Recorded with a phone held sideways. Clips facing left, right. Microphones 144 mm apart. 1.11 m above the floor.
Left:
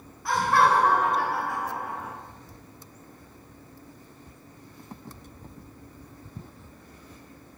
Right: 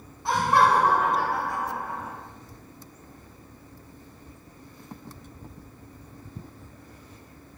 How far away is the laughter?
About 0.6 m.